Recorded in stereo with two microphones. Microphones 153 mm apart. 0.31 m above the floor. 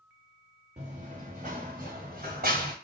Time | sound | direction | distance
0.8 | running footsteps | 50° right (ahead or behind) | 1.1 m